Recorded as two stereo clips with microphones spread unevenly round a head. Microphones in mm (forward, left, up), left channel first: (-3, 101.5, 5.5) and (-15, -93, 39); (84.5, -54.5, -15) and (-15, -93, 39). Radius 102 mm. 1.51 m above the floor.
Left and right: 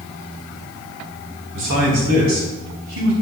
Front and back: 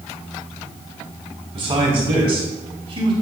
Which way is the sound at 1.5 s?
120° right.